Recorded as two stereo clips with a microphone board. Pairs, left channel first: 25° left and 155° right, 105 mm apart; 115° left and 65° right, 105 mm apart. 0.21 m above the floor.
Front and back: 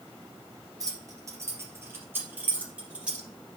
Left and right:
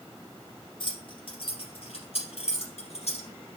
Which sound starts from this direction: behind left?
Keys jangling, at 0.8 s.